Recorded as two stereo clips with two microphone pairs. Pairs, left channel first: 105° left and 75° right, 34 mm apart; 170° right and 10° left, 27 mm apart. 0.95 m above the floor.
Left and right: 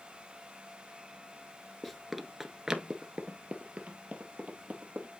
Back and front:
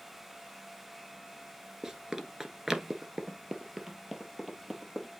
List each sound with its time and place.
1.8 s running footsteps: 20° left, 0.9 m; by 5.2 s 70° right, 1.9 m